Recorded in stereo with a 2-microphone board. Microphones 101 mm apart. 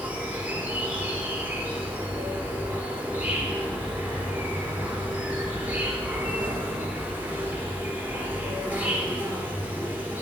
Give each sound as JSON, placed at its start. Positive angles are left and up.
{"t": 0.0, "sound": "an insect", "side_deg": -20, "distance_m": 3.0}